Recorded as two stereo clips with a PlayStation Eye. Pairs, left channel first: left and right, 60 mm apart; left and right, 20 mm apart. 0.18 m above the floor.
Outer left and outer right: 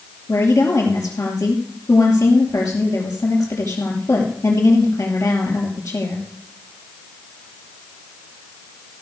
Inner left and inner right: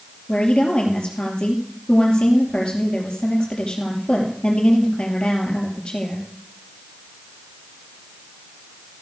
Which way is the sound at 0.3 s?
60° left (ahead or behind).